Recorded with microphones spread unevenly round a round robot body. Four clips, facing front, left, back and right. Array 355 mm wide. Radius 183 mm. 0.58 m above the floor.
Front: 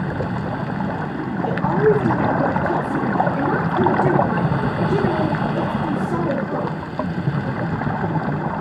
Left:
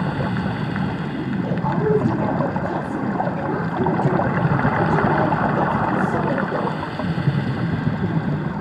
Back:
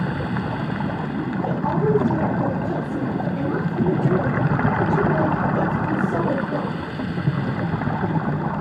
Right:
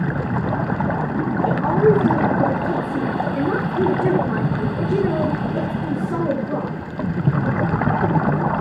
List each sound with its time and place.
1.4 s a woman speaking: 65° right, 9.5 m